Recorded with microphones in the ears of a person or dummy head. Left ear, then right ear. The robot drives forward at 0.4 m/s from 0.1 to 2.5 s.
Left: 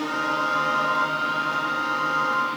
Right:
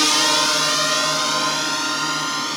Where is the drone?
75° right (ahead or behind); by 2.6 s 85° right.